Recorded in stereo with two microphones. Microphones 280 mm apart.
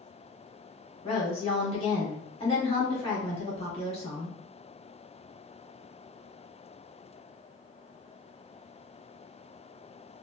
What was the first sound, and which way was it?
A woman speaking, 20° left (ahead or behind).